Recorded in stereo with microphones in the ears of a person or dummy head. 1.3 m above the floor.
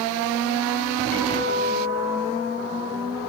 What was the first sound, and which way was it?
A guitar, 45° left (ahead or behind).